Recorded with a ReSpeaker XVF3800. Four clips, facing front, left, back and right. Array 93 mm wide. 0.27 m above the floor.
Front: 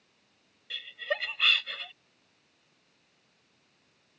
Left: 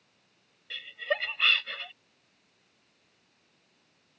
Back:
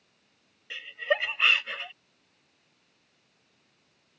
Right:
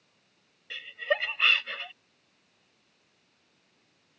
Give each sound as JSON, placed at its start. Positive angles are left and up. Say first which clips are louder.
{"t": 0.7, "sound": "laughter", "louder": "right 2 dB, back 6 dB", "azimuth_deg": -160}